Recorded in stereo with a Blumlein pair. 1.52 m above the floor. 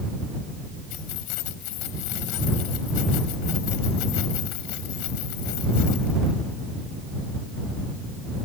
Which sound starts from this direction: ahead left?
Keys jangling, at 0.9 s.